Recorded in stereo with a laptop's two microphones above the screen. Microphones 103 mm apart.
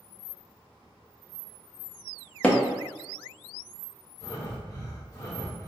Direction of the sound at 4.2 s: 40° left (ahead or behind).